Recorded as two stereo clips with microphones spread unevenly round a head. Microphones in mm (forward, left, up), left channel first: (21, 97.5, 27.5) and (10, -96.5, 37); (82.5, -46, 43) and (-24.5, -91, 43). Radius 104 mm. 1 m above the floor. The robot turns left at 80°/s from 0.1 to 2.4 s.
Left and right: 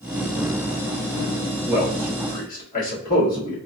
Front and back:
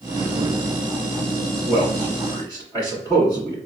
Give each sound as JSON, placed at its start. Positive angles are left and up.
{"t": 1.7, "sound": "a man speaking", "azimuth_deg": -165, "distance_m": 1.8}